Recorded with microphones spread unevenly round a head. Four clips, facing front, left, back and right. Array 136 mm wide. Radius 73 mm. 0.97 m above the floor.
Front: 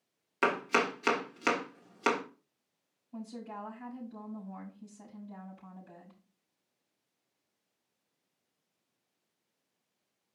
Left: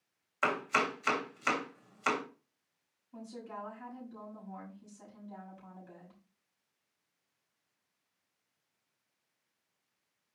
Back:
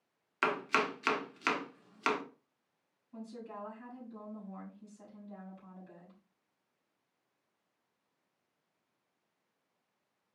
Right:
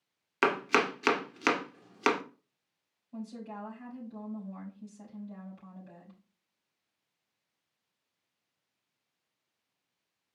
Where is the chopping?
70° right, 1.5 m.